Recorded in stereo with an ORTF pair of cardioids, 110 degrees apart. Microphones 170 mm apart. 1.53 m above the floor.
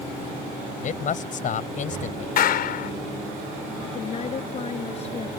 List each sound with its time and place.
0.8 s a man speaking: 50° left
2.4 s a clap: 65° left
3.8 s a woman speaking: 40° left